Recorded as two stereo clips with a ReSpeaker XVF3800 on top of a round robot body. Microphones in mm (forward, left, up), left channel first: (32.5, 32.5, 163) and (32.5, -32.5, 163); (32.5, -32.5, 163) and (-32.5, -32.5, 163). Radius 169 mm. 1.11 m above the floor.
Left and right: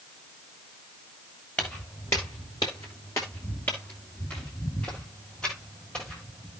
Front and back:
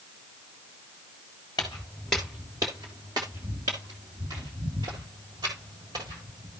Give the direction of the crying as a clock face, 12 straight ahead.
I don't hear crying.